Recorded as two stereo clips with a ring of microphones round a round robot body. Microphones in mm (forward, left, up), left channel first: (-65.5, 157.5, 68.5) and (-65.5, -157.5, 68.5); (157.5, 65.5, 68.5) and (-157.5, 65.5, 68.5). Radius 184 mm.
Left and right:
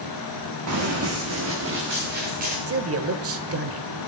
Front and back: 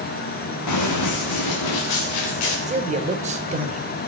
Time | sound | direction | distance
0.7 | running footsteps | 45° right | 2.5 m
2.7 | a man speaking | 115° right | 1.3 m